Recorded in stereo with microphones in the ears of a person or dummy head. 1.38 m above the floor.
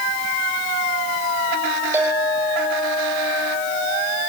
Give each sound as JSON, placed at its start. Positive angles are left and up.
{"t": 1.9, "sound": "a clink", "side_deg": -5, "distance_m": 5.5}